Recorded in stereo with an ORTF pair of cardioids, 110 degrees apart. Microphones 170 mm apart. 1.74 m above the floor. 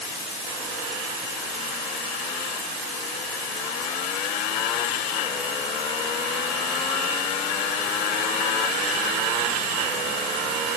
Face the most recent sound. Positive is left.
No sound to turn to.